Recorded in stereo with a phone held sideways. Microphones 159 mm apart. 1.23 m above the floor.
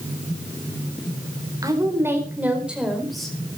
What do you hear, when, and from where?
1.6 s a woman speaking: 25° right (ahead or behind), 4.5 m; by 3.4 s 5° left (ahead or behind), 5 m